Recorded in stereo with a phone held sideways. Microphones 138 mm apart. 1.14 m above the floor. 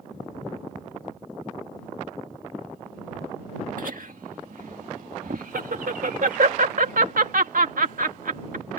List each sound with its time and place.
3.8 s laughter: 80° right